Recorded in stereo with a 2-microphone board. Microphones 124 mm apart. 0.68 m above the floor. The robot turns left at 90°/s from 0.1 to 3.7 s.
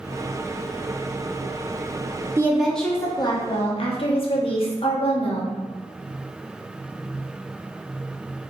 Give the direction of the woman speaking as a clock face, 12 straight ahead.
5 o'clock.